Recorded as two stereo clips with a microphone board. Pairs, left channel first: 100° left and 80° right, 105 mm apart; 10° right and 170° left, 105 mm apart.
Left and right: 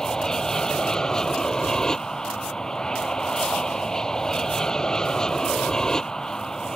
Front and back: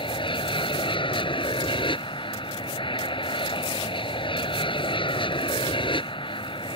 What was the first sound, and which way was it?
An aircraft, 20° left.